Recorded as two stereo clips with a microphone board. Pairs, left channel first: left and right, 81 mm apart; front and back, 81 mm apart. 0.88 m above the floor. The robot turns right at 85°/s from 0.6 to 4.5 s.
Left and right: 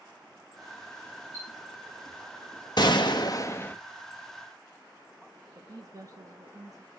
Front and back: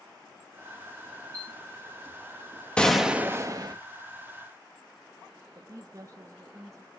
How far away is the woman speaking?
About 1.1 m.